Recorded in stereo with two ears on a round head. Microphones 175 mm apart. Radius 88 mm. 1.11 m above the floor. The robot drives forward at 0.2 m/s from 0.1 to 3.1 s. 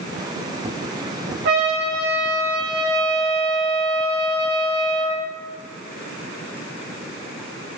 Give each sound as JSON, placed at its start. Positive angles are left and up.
{"t": 1.4, "sound": "a trumpet", "side_deg": -55, "distance_m": 0.9}